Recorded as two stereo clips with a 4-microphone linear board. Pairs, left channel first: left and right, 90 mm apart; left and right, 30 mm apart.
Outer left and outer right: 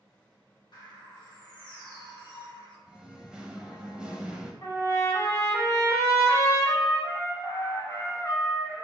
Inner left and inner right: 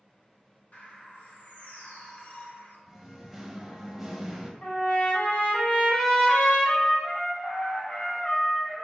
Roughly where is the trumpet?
Left.